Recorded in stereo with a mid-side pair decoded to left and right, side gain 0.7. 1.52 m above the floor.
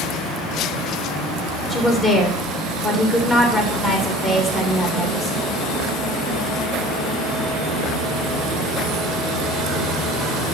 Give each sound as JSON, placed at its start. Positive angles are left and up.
{"t": 1.7, "sound": "a woman speaking", "azimuth_deg": 25, "distance_m": 2.5}